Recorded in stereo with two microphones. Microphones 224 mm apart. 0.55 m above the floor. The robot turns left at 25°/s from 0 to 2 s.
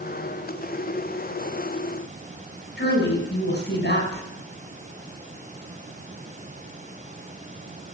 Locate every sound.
2.8 s a woman speaking: 55° left (ahead or behind), 5.5 m